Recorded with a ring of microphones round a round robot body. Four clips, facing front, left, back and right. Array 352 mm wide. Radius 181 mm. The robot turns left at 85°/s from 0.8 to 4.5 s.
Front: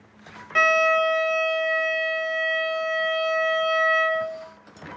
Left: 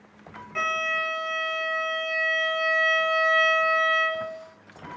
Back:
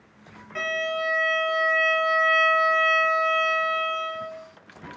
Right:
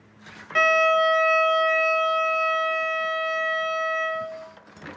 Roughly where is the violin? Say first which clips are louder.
Right 9 dB, front 8 dB; ahead right.